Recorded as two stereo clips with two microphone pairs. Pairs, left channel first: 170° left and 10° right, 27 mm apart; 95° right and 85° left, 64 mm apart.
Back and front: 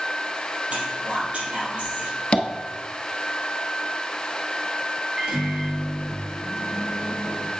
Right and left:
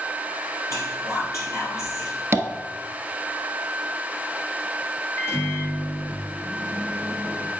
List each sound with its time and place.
0.7 s whispering: 55° right, 3 m
2.3 s tapping: 130° left, 0.7 m
5.2 s a microwave: 65° right, 2 m